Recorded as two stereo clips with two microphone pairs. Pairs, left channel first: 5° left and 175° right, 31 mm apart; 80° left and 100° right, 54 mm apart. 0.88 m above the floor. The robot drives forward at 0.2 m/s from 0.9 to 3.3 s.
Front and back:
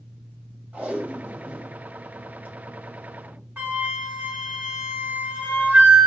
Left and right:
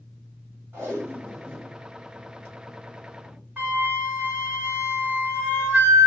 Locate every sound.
0.7 s tape being pulled: 155° right, 2.5 m; by 3.4 s 160° right, 3 m
3.6 s a flute: 160° right, 1.9 m